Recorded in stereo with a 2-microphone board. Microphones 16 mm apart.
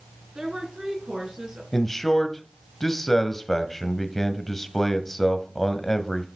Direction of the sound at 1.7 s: 15° left (ahead or behind).